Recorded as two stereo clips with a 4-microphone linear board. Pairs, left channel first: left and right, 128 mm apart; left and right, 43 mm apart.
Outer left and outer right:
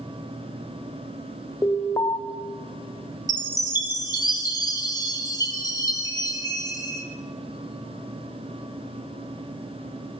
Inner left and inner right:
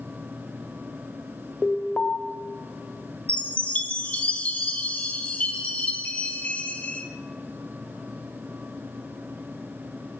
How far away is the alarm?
About 1.1 m.